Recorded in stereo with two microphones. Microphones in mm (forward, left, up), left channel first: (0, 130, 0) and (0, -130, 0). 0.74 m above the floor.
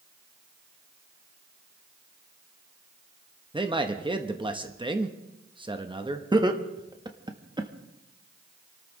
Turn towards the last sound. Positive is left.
turn(degrees=-15)  # may be behind; listen again after turning